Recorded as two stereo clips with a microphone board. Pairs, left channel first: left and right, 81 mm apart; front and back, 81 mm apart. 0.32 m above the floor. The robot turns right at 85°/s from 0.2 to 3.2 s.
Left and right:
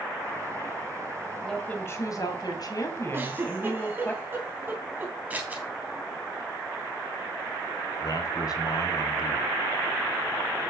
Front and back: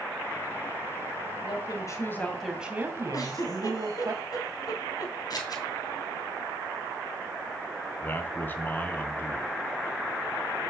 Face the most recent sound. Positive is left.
turn(degrees=65)